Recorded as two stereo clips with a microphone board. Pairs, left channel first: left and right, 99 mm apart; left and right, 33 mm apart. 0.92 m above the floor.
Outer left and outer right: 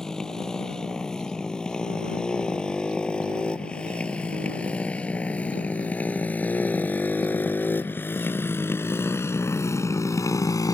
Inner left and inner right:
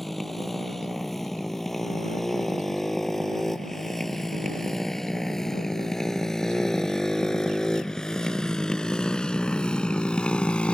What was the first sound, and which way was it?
A motorcycle, 5° left (ahead or behind).